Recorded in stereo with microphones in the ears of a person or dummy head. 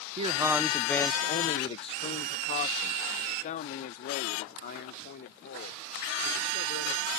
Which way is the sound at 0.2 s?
25° right (ahead or behind).